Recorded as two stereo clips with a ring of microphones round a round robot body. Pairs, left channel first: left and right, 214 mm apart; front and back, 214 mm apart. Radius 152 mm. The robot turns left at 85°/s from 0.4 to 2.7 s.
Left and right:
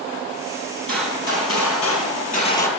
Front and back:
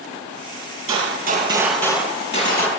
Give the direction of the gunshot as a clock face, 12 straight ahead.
7 o'clock.